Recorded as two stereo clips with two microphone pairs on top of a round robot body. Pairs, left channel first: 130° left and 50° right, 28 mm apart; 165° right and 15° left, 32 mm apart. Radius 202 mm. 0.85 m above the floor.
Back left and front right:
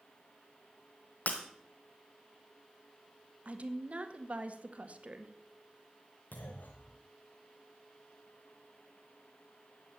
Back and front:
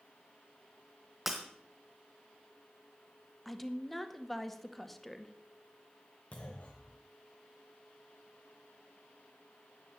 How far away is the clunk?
About 0.9 m.